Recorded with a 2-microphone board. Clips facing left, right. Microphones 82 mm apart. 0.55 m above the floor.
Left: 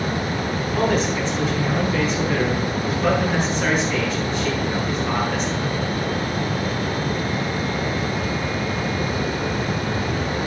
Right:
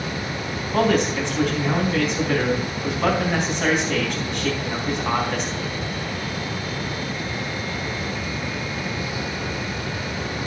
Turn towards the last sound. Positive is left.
turn(degrees=-70)  # may be behind; listen again after turning